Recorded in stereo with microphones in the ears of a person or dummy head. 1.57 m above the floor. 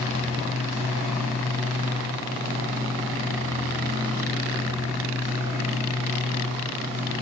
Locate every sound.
0.0 s a machine running: 15° right (ahead or behind), 1.9 m